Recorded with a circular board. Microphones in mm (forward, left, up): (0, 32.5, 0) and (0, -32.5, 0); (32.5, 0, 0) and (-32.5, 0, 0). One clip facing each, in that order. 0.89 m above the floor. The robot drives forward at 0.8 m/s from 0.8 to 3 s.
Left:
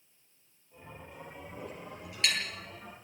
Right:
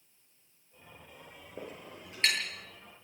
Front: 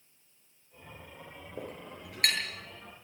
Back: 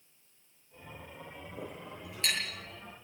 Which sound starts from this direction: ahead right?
A clink, at 1.6 s.